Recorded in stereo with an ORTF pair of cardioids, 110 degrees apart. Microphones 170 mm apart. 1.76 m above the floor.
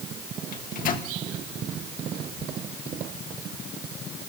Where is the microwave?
55° left, 1.8 m.